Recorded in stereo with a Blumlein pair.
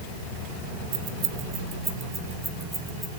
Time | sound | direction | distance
0.9 | keys jangling | 45° right | 1.0 m